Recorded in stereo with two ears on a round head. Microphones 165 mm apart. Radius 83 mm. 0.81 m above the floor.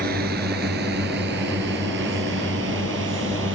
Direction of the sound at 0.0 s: 55° right (ahead or behind).